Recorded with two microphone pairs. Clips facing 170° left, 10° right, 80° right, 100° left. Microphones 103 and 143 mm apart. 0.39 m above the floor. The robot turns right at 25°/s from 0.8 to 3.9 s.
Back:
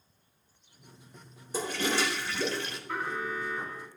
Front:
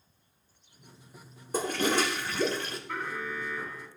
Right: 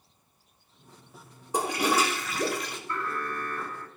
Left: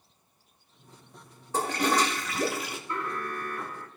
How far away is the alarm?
About 1.9 m.